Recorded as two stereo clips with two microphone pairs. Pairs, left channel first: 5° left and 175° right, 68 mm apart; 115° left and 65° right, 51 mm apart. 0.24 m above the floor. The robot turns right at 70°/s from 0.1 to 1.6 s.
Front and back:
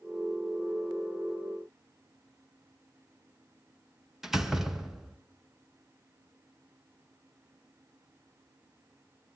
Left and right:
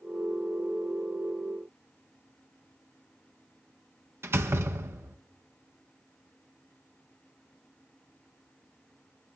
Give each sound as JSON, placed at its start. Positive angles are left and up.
{"t": 4.2, "sound": "a door slam", "azimuth_deg": -85, "distance_m": 1.7}